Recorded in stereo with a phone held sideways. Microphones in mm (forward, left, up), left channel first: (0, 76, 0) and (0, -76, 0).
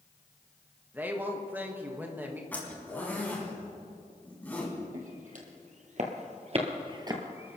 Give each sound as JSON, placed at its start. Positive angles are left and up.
{"t": 0.9, "sound": "a woman speaking", "side_deg": -10, "distance_m": 1.5}
{"t": 2.5, "sound": "a zipper", "side_deg": 10, "distance_m": 3.5}
{"t": 4.9, "sound": "footsteps", "side_deg": -60, "distance_m": 3.0}